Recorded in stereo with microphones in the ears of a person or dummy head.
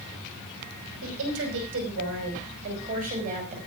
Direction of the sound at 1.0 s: 75° right (ahead or behind).